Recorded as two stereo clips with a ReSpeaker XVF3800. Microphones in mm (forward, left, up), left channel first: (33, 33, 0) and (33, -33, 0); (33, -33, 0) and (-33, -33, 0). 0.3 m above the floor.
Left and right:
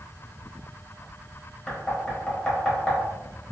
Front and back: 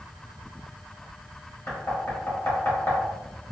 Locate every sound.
1.7 s knocking: 20° left, 1.2 m